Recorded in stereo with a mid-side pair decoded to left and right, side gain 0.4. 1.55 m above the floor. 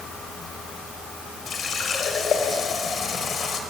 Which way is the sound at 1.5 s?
55° left.